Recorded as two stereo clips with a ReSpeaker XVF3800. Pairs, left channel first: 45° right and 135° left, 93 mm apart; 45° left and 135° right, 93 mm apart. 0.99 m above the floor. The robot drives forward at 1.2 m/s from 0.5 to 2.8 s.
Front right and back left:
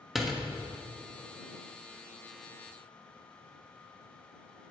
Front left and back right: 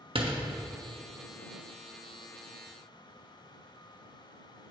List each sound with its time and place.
0.1 s a door slam: 140° right, 1.2 m